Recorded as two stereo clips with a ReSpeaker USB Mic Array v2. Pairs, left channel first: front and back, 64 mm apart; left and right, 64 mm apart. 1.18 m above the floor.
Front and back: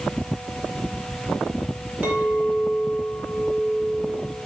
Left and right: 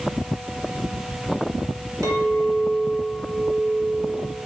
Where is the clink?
115° right, 2.0 m.